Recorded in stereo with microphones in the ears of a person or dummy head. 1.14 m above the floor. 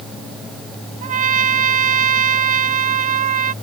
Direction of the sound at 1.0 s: 45° right (ahead or behind).